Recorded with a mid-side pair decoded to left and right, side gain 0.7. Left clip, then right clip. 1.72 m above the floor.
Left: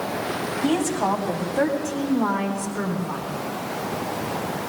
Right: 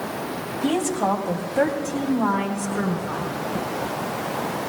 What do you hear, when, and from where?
0.6 s a woman speaking: 10° right, 2.5 m; by 3.3 s 15° right, 5.5 m